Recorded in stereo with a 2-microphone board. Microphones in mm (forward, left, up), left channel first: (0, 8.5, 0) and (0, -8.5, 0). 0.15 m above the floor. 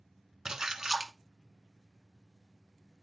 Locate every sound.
0.5 s a splash: 25° right (ahead or behind), 1.0 m